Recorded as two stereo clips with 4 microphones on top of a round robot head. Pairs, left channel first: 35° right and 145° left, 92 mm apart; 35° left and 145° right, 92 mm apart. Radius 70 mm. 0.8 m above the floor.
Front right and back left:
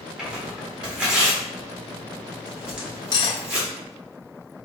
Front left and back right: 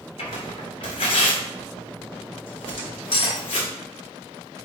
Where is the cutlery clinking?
5° left, 1.0 m.